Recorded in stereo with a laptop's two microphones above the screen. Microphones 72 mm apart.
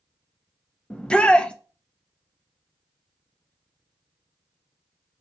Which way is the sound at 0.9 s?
15° left (ahead or behind).